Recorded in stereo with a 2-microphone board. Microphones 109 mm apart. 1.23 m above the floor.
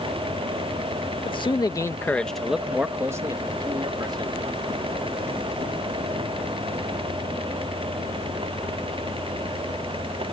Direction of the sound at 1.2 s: 55° left (ahead or behind).